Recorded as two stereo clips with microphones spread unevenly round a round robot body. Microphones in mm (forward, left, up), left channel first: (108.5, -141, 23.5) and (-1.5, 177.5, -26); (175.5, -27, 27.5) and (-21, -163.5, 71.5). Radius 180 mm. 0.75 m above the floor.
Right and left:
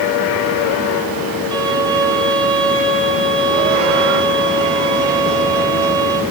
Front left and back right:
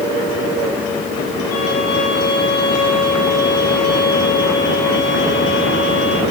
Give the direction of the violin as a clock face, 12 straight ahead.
11 o'clock.